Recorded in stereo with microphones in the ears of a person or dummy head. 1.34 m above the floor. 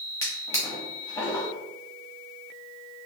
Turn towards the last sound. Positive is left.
turn(degrees=15)  # may be behind; listen again after turning